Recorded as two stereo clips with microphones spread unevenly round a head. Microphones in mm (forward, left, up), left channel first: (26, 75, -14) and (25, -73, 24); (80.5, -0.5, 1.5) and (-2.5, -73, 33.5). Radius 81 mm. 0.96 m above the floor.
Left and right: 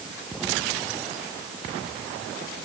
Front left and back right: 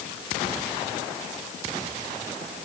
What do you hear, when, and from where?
Only background noise.